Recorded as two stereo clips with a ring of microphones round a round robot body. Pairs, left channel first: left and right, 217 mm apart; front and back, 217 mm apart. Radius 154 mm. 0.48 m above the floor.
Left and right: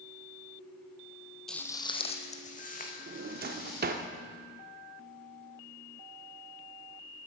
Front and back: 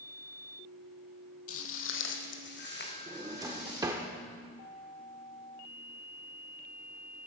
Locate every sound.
1.5 s footsteps: straight ahead, 1.0 m; by 3.9 s 45° left, 4 m
3.1 s a drawer: 110° right, 0.5 m